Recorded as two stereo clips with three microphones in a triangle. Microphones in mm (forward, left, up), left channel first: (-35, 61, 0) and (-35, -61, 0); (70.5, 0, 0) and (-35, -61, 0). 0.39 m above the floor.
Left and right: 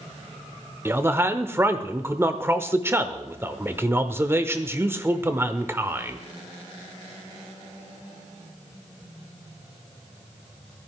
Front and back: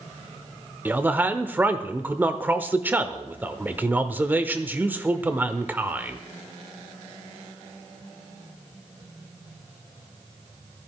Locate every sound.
0.8 s a man speaking: 105° right, 0.8 m